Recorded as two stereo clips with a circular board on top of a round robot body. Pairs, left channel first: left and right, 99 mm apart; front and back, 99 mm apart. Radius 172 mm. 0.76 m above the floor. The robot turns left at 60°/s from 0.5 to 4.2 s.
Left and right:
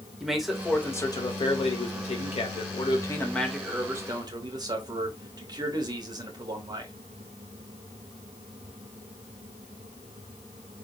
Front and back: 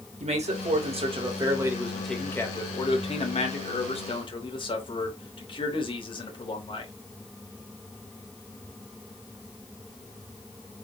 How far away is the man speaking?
About 3 m.